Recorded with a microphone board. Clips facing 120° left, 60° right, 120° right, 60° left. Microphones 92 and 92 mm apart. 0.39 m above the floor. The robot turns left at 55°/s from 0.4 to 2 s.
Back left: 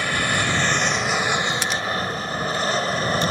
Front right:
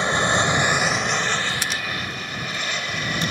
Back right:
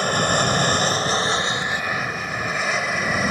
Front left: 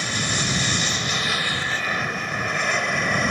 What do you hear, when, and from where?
0.0 s an aircraft: 115° right; by 3.3 s 155° left